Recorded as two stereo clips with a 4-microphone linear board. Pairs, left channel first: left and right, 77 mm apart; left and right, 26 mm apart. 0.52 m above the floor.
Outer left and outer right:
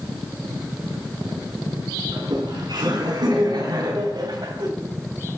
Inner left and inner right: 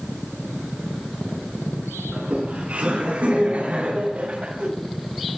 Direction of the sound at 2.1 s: 75° right (ahead or behind).